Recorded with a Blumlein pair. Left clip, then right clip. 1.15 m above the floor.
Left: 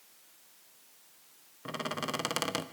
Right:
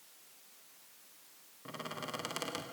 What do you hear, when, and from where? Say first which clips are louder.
1.6 s a squeak: left 7 dB; 65° left, 0.8 m